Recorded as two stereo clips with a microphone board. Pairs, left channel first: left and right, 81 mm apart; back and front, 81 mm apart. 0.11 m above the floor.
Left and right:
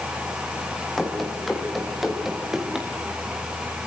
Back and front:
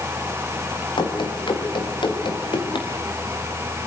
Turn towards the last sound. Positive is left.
turn(degrees=-175)